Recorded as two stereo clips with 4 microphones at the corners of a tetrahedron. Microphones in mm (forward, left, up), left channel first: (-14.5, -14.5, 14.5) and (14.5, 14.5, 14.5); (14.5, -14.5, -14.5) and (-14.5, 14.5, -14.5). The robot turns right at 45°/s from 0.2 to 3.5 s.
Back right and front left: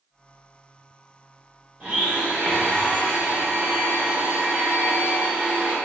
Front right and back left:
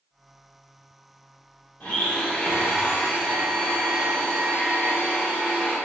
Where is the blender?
10° right, 1.5 m; by 5.8 s 65° left, 1.5 m.